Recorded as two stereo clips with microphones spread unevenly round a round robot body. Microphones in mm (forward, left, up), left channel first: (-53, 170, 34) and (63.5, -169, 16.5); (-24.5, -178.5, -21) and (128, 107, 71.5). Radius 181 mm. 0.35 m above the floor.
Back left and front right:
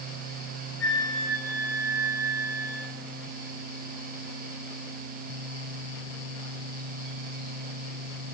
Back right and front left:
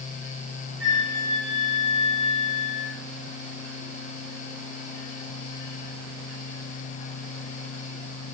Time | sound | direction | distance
0.8 | a flute | 50° left | 3.5 m